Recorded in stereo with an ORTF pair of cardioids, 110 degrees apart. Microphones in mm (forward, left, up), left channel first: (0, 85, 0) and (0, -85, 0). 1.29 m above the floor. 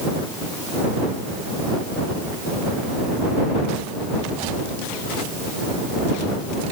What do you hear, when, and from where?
Only background noise.